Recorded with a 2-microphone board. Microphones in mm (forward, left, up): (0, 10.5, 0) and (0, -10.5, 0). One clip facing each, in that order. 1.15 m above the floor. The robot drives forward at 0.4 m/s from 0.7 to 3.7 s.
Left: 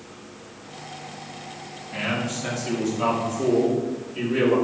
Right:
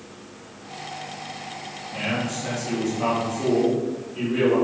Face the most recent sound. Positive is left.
turn(degrees=20)  # may be behind; listen again after turning